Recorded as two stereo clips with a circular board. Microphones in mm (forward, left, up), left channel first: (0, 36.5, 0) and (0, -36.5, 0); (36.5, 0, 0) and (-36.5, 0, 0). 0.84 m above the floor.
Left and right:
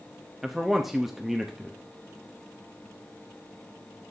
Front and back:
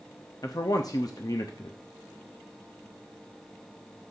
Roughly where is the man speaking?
Ahead.